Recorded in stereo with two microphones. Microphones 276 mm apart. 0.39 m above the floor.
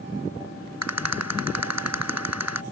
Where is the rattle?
70° right (ahead or behind).